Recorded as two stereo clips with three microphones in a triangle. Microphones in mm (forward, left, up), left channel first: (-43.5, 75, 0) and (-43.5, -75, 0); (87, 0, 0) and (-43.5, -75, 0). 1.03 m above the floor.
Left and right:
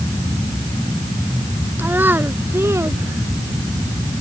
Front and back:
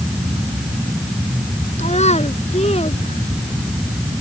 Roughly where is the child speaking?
Ahead.